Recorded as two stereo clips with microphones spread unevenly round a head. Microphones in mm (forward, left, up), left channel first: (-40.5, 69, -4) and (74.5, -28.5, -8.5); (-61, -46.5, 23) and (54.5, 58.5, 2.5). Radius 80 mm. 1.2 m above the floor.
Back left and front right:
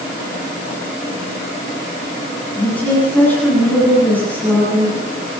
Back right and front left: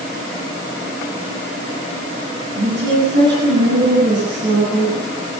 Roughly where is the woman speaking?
Ahead left.